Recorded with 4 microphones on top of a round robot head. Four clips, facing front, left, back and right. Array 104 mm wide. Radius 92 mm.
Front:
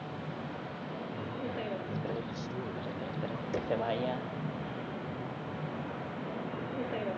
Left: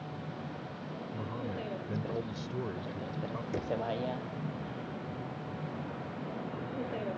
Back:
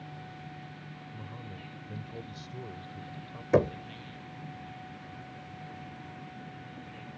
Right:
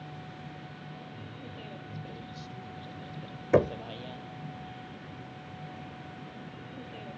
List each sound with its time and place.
0.0 s a vehicle: 20° left; by 7.2 s 25° left
1.1 s a man speaking: 75° left
3.5 s knocking: 125° right